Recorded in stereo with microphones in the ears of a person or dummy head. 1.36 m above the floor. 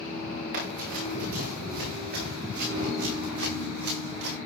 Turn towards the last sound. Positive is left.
turn(degrees=-60)  # may be behind; listen again after turning